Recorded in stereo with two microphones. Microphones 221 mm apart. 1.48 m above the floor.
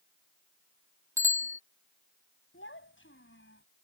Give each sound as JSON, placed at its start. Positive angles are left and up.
{"t": 1.2, "sound": "a bicycle bell", "side_deg": -10}
{"t": 2.5, "sound": "a child speaking", "side_deg": 60}